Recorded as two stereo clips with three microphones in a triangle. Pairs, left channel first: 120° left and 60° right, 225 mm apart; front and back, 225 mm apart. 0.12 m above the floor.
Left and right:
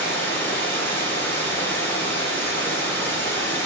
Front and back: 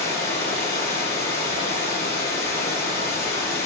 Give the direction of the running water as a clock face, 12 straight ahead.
11 o'clock.